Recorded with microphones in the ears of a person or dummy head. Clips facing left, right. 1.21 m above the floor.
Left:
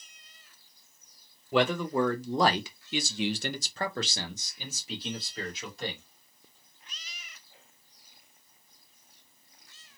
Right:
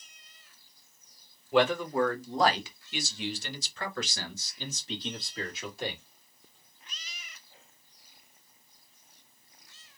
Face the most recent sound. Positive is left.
turn(degrees=-5)  # may be behind; listen again after turning